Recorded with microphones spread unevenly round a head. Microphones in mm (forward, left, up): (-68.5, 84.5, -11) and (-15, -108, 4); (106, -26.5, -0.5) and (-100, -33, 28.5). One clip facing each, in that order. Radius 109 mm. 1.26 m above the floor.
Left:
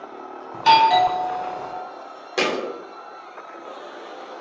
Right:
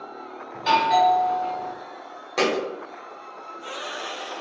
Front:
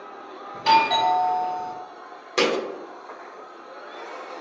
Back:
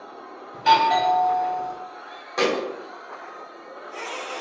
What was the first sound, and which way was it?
A doorbell, 90° left.